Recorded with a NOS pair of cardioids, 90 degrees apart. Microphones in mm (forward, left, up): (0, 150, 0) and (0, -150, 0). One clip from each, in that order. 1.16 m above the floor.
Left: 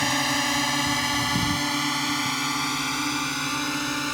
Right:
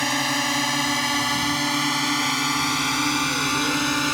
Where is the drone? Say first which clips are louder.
Right 1 dB; 5° right; by 4.2 s 35° right.